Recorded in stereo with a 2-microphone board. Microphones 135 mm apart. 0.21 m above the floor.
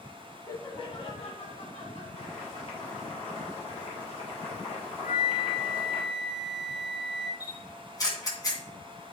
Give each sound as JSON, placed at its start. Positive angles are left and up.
{"t": 0.5, "sound": "laughter", "side_deg": 25, "distance_m": 1.1}
{"t": 2.1, "sound": "boiling", "side_deg": 45, "distance_m": 4.5}
{"t": 5.0, "sound": "a flute", "side_deg": 45, "distance_m": 2.5}
{"t": 7.4, "sound": "a camera shutter", "side_deg": 30, "distance_m": 2.0}